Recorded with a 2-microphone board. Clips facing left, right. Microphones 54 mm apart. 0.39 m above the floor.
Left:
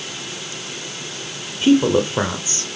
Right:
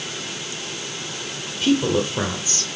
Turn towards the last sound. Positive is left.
turn(degrees=25)  # may be behind; listen again after turning